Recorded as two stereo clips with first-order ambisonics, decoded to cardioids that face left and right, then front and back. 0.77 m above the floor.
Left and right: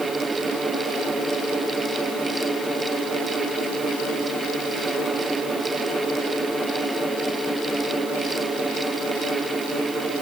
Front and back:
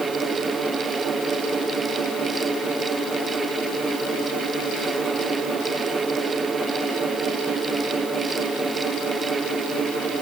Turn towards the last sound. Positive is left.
No sound to turn to.